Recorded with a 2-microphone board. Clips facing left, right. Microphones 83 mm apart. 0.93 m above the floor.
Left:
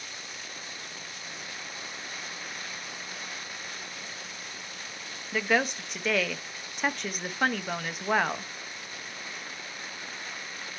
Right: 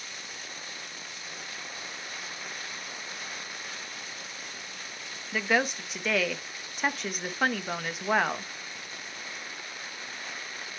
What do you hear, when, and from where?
5.3 s a woman speaking: centre (ahead or behind), 0.6 m